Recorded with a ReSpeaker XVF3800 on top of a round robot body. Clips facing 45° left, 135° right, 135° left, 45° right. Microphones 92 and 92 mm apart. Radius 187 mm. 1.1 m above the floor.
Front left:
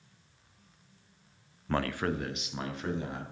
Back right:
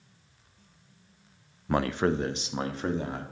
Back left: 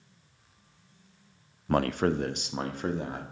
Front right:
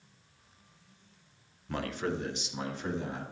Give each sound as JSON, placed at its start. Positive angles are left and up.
{"t": 1.7, "sound": "a man speaking", "azimuth_deg": 150, "distance_m": 0.5}